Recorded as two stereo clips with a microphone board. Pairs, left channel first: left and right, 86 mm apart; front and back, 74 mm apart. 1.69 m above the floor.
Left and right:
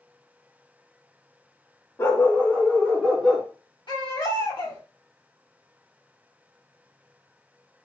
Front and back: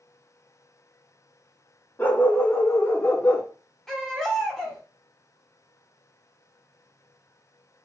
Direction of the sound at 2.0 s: 55° left.